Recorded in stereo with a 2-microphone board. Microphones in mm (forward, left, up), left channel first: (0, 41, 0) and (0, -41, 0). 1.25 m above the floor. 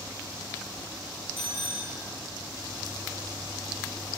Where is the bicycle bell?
85° left, 5 m.